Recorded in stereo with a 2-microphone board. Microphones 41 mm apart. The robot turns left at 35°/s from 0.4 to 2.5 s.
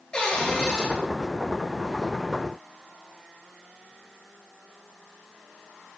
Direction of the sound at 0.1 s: 20° left (ahead or behind).